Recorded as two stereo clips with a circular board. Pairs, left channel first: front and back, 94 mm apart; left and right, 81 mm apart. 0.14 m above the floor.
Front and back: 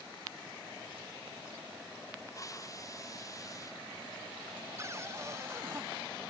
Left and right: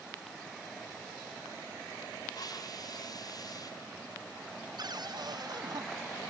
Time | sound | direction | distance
2.3 | a hiss | 55° left | ?
4.8 | a cupboard door | 120° right | ?